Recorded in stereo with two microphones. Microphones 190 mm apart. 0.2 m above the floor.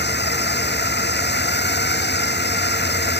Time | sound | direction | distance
0.0 | a drone | 65° left (ahead or behind) | ?